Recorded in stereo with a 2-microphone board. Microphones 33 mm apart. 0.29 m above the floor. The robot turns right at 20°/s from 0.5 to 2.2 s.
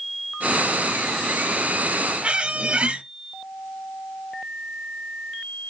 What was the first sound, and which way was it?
A squeak, 35° right (ahead or behind).